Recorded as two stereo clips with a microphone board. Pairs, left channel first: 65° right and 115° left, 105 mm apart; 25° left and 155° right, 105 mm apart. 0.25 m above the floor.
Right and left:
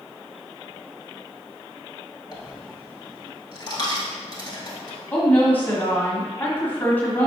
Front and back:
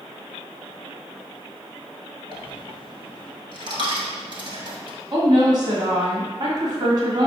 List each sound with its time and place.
2.3 s a dropped coin: 115° right, 1.0 m
5.1 s a woman speaking: 135° right, 1.7 m